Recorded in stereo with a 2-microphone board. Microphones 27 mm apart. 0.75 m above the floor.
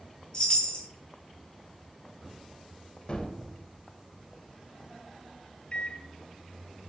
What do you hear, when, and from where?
0.3 s a chime: 40° left (ahead or behind), 1.7 m
3.1 s a gunshot: 40° left (ahead or behind), 0.9 m
5.7 s a microwave: 40° left (ahead or behind), 0.5 m